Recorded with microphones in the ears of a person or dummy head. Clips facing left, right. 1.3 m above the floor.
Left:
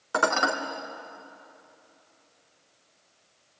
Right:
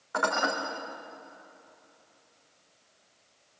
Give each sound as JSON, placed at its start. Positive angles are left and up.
{"t": 0.1, "sound": "dishes clattering", "side_deg": 65, "distance_m": 2.5}